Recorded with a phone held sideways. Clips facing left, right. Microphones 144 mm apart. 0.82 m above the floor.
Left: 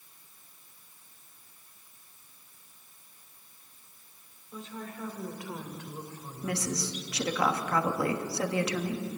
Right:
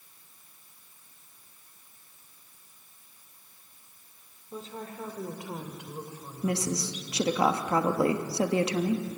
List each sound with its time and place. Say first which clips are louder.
4.5 s a woman speaking: right 2 dB; 40° right (ahead or behind), 2 m; by 7.4 s centre (ahead or behind), 4 m
6.4 s a woman speaking: right 3 dB; 25° right (ahead or behind), 1.4 m